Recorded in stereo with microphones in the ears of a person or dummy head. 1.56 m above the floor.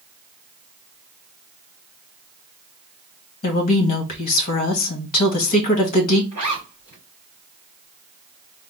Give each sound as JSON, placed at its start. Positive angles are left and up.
{"t": 3.4, "sound": "a woman speaking", "side_deg": 50, "distance_m": 1.4}
{"t": 6.3, "sound": "a zipper", "side_deg": 30, "distance_m": 2.5}